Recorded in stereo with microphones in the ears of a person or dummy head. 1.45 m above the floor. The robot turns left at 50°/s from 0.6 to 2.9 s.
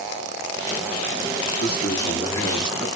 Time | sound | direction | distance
1.6 | a man speaking | 55° left | 1.5 m